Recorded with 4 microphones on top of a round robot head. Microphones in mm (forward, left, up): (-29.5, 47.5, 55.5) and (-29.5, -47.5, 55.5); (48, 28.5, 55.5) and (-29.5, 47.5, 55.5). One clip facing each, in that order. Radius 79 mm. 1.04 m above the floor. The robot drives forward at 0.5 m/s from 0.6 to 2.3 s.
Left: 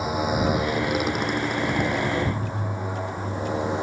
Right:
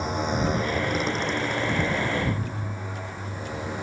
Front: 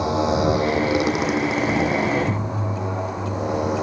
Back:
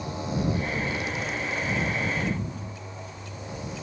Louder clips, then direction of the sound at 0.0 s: Left 2 dB, front 10 dB; 5° left.